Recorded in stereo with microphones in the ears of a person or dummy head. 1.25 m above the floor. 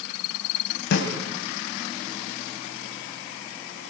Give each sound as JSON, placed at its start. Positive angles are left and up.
{"t": 0.9, "sound": "a snare drum", "side_deg": 60, "distance_m": 3.0}